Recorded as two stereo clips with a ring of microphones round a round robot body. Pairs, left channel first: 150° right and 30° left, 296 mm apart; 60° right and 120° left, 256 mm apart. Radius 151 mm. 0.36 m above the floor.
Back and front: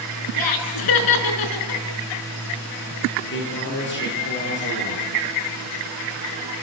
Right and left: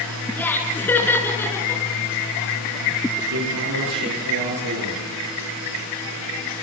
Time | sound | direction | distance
0.4 | laughter | 145° right | 5 m
3.2 | a man speaking | 155° left | 9 m